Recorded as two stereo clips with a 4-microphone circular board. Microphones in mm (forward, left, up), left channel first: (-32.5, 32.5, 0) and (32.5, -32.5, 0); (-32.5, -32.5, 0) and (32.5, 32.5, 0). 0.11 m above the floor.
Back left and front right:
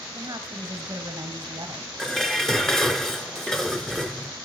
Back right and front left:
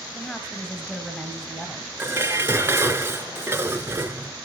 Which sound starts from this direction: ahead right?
A woman speaking, at 0.1 s.